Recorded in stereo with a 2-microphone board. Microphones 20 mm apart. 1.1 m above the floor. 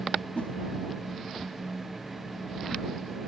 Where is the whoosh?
70° left (ahead or behind).